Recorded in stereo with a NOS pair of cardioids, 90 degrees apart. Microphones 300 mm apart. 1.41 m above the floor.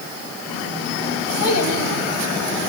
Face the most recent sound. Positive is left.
turn(degrees=55)